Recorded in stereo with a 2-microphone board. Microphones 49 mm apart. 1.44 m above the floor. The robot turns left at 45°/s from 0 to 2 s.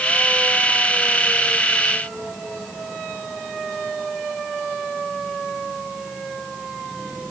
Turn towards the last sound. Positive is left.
No sound to turn to.